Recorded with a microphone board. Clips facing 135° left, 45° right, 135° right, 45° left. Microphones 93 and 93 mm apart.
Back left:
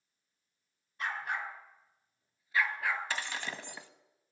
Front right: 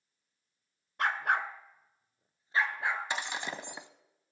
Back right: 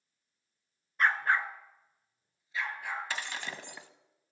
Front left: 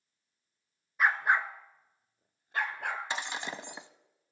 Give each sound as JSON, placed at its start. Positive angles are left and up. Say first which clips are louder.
{"t": 1.0, "sound": "a dog barking", "louder": "front right 7 dB, front left 1 dB", "azimuth_deg": -40, "distance_m": 0.8}
{"t": 3.1, "sound": "breaking glass", "louder": "front right 2 dB, front left 2 dB", "azimuth_deg": 0, "distance_m": 0.6}